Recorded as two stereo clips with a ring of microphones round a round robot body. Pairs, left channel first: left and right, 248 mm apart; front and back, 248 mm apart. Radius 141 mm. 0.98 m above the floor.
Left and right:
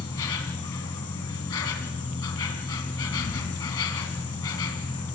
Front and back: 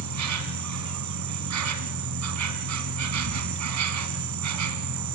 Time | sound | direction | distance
0.0 | an insect | 165° left | 2 m